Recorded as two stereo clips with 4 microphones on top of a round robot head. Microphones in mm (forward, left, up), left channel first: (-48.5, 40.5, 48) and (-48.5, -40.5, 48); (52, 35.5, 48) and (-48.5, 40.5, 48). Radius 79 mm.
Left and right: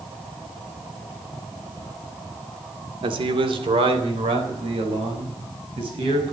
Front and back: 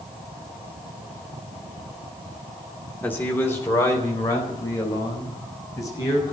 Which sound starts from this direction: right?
A man speaking, at 3.0 s.